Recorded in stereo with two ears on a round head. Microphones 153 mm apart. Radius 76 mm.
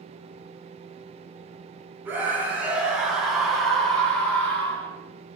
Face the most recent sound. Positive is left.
turn(degrees=10)  # may be behind; listen again after turning